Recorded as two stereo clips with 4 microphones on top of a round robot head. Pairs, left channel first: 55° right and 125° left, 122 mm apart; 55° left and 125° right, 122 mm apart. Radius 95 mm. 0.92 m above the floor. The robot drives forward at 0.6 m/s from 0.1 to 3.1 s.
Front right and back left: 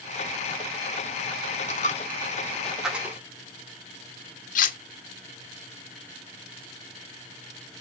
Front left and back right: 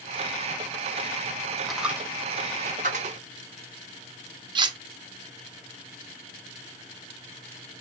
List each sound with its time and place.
1.7 s a dropped coin: 35° right, 0.6 m; by 3.2 s 155° right, 0.7 m
4.5 s cutlery clinking: 75° right, 0.6 m